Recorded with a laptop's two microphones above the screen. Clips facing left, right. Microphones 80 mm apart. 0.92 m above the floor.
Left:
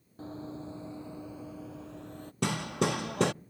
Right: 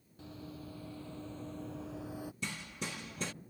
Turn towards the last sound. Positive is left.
turn(degrees=75)  # may be behind; listen again after turning